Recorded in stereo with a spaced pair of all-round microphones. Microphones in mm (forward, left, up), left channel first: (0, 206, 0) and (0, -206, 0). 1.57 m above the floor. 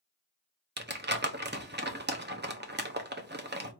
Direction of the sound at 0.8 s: 25° right (ahead or behind).